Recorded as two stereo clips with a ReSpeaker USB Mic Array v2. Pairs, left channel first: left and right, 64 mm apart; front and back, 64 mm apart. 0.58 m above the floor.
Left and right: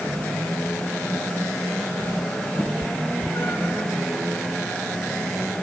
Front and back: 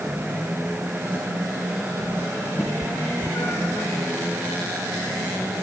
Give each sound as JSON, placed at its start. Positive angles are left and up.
{"t": 2.6, "sound": "a cat meowing", "azimuth_deg": 45}